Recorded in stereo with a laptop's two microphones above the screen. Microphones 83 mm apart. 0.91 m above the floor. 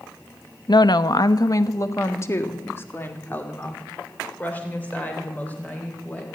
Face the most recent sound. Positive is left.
turn(degrees=15)  # may be behind; listen again after turning